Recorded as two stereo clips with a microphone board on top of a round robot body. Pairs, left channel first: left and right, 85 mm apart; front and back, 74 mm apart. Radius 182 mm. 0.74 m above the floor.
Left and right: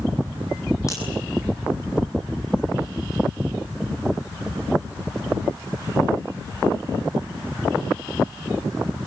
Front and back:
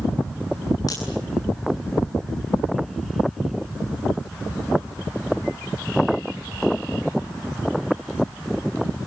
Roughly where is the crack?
Ahead left.